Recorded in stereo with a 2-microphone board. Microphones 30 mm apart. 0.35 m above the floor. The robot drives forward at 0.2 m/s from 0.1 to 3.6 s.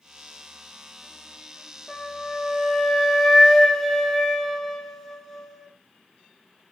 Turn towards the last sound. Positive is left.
turn(degrees=10)  # may be behind; listen again after turning